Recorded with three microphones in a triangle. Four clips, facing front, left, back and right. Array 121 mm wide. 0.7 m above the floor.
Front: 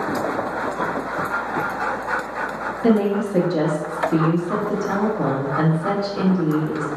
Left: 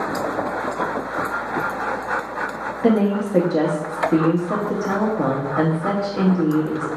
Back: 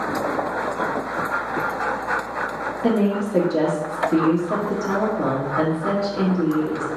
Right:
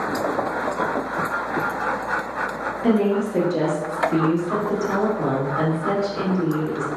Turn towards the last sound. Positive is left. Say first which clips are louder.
# left 1 dB, front 2 dB
turn(degrees=90)